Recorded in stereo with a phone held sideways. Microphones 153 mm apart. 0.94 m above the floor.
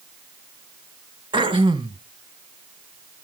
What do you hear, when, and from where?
1.3 s throat clearing: 35° right (ahead or behind), 1.0 m